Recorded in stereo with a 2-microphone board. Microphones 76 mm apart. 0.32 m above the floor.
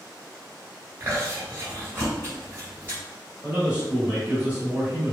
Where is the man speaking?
20° right (ahead or behind), 1.1 m.